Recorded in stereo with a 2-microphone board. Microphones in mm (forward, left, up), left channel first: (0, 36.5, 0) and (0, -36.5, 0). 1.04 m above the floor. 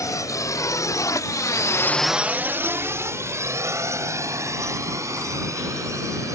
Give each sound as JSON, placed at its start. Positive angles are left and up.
{"t": 0.0, "sound": "a drone", "side_deg": 50}